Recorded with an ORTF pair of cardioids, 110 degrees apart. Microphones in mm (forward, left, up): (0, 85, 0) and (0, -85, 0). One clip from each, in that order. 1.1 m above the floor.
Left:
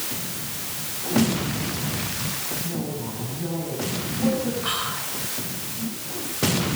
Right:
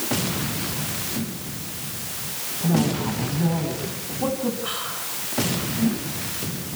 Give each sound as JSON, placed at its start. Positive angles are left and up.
{"t": 2.6, "sound": "a woman speaking", "azimuth_deg": -55, "distance_m": 7.5}
{"t": 4.6, "sound": "whispering", "azimuth_deg": 25, "distance_m": 4.5}